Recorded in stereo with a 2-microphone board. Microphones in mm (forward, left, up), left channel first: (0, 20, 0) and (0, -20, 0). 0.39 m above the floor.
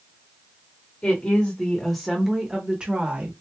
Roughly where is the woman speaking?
Left.